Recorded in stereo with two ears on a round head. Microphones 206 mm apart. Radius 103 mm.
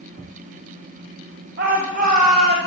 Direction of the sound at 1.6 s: 45° right (ahead or behind).